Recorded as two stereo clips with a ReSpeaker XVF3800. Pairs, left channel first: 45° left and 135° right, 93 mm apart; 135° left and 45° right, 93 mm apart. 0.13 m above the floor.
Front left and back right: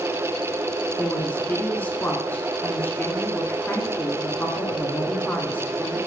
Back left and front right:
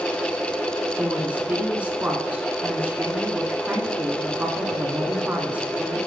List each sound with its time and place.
1.0 s a woman speaking: straight ahead, 1.7 m